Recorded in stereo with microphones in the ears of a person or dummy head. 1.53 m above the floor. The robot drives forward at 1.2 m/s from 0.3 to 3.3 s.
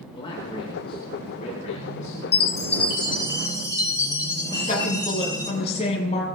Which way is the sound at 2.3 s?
60° left (ahead or behind).